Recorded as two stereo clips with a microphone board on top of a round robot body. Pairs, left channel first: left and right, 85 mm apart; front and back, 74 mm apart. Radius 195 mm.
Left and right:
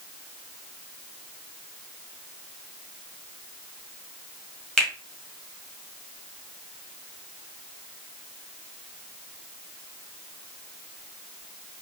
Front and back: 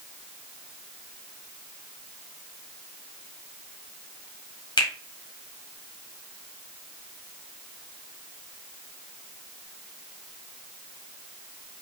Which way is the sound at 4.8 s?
5° left.